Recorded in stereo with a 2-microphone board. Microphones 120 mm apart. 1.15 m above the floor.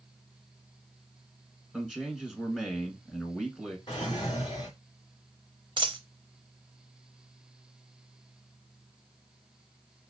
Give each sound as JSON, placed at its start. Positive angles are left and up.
{"t": 1.7, "sound": "a man speaking", "side_deg": 5, "distance_m": 1.4}
{"t": 3.9, "sound": "a drawer", "side_deg": 40, "distance_m": 1.8}
{"t": 5.8, "sound": "a dropped coin", "side_deg": -40, "distance_m": 0.8}